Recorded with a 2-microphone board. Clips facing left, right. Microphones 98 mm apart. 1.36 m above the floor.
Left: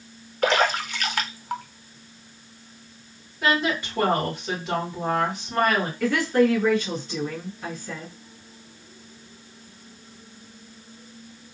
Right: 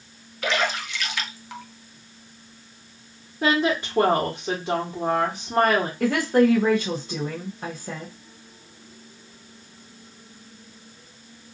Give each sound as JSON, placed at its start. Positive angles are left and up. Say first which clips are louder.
{"t": 0.4, "sound": "a splash", "louder": "left 4 dB", "side_deg": 45, "distance_m": 0.6}
{"t": 3.4, "sound": "a woman speaking", "louder": "right 2 dB", "side_deg": -40, "distance_m": 1.4}
{"t": 6.0, "sound": "a woman speaking", "louder": "right 1 dB", "side_deg": -45, "distance_m": 0.9}